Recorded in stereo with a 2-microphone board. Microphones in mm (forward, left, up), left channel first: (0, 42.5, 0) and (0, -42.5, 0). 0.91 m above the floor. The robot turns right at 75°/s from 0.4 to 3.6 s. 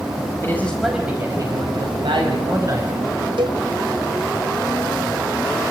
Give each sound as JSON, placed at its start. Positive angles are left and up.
{"t": 0.4, "sound": "a man speaking", "azimuth_deg": 150, "distance_m": 4.5}
{"t": 3.4, "sound": "a cowbell", "side_deg": -75, "distance_m": 2.5}